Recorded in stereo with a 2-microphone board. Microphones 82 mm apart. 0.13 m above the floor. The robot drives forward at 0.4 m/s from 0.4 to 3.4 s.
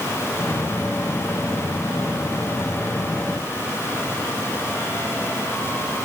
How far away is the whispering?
I don't hear whispering.